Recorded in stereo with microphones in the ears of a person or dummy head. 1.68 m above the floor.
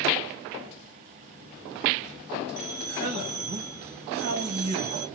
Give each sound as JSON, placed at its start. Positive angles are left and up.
{"t": 2.6, "sound": "a man speaking", "side_deg": -55, "distance_m": 1.2}